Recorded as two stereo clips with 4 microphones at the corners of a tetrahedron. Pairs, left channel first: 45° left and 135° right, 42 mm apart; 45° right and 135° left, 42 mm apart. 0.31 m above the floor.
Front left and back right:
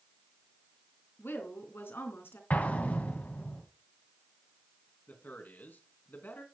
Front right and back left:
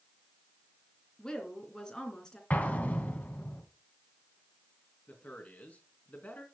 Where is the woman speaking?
25° left, 3 m.